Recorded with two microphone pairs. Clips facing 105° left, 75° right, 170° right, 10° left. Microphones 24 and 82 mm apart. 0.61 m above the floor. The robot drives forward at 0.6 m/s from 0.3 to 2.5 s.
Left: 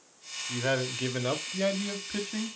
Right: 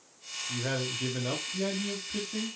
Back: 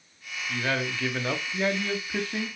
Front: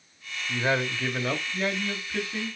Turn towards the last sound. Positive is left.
turn(degrees=145)